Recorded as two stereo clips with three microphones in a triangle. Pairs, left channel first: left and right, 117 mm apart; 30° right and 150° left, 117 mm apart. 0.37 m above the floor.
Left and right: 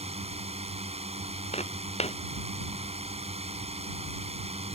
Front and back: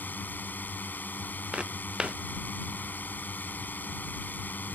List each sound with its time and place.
0.0 s a drone: 105° right
1.5 s footsteps: 65° left